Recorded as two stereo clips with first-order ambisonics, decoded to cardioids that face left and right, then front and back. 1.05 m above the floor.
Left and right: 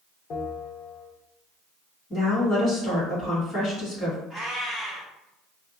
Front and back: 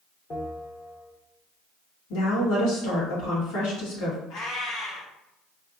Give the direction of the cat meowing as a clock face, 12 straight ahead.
12 o'clock.